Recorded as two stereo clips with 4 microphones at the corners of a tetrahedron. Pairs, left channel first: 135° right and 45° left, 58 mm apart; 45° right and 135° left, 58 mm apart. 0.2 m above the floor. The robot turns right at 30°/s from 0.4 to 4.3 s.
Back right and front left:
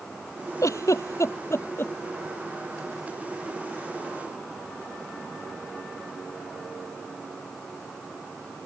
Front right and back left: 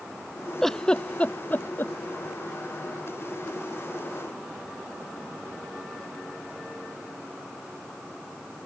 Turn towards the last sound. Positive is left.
turn(degrees=-15)